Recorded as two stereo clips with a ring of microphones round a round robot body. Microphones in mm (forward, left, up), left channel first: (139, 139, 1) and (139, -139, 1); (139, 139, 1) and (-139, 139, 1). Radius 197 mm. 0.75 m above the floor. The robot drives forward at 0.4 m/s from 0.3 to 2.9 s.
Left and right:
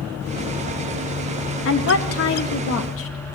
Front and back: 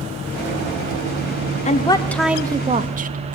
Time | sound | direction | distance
1.6 | a woman speaking | 60° left | 0.6 m